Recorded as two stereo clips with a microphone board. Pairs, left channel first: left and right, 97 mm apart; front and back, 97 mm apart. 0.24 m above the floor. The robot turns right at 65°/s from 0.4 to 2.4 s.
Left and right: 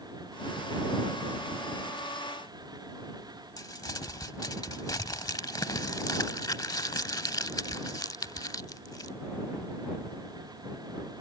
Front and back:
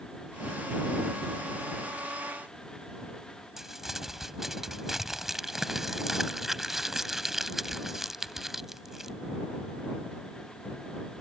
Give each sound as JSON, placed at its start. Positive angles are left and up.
{"t": 3.6, "sound": "crumpling", "azimuth_deg": 95}